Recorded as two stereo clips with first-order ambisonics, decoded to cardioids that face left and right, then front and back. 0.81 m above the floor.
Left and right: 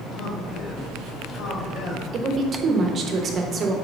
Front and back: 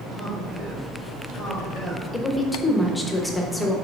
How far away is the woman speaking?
About 0.9 m.